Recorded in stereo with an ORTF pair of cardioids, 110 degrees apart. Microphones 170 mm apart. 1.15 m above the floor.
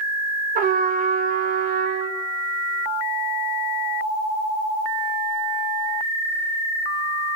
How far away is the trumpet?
About 2 m.